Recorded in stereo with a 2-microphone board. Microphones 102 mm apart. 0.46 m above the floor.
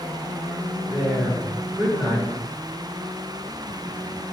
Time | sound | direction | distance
0.9 | a woman speaking | 15° right (ahead or behind) | 1.4 m